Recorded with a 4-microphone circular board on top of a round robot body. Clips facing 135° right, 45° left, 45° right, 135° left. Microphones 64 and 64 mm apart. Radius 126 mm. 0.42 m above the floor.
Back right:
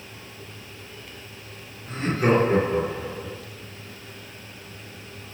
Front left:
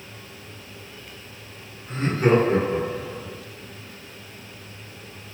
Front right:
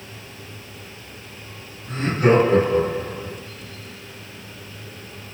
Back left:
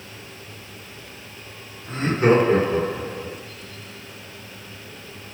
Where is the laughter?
140° left, 1.5 m; by 3.4 s straight behind, 1.8 m.